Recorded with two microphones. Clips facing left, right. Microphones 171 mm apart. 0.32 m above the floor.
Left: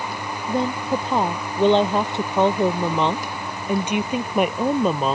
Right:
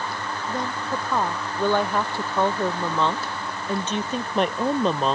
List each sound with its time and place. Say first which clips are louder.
0.5 s a woman speaking: left 7 dB; 30° left (ahead or behind); by 5.2 s 5° left (ahead or behind)